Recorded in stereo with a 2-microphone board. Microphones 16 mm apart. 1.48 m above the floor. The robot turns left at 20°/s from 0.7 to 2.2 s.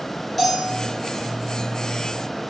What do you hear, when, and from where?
0.4 s a bell: 5° left (ahead or behind), 2.5 m